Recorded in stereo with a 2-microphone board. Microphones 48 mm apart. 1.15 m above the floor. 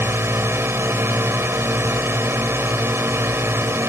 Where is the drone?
55° right (ahead or behind).